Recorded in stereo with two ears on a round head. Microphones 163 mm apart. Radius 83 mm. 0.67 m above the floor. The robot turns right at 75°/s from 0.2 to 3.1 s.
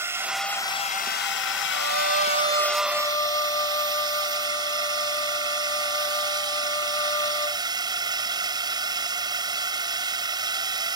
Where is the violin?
85° right; by 7.6 s 20° left.